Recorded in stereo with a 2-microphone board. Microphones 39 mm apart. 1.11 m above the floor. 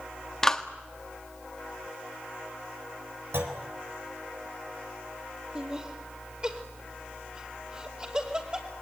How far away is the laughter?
About 3 m.